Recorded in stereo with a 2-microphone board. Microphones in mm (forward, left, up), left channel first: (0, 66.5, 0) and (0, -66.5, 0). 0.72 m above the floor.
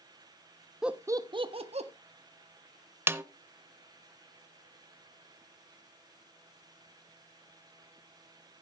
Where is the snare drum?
15° right (ahead or behind), 0.7 m.